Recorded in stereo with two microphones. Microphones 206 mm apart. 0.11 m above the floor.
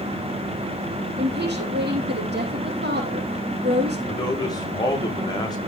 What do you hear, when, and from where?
1.2 s a woman speaking: 55° right (ahead or behind), 5.5 m
4.1 s a man speaking: 20° left (ahead or behind), 6.5 m